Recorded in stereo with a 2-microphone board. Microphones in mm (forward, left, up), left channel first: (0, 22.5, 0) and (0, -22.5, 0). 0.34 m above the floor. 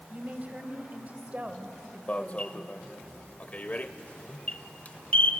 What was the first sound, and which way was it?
A woman speaking, 35° right (ahead or behind).